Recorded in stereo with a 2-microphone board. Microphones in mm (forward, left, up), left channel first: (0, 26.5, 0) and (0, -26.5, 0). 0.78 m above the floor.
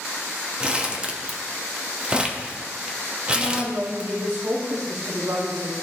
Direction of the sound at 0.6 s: 15° right (ahead or behind).